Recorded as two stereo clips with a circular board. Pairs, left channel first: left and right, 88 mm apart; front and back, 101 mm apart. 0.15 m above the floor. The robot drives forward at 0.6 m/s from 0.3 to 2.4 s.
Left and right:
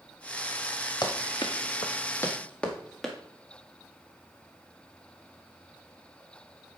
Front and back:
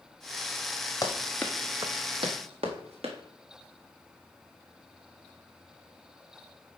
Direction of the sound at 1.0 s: 55° left.